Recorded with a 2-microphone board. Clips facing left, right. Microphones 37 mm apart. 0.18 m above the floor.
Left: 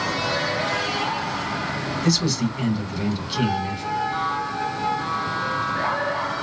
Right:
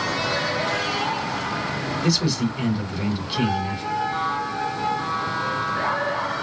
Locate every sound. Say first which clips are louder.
2.0 s a man speaking: even; 10° right (ahead or behind), 1.5 m